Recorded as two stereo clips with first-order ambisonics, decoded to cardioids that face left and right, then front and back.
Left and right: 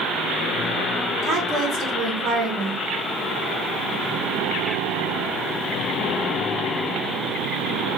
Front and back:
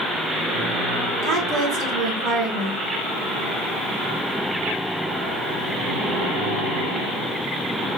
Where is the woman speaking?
140° right, 1.4 m.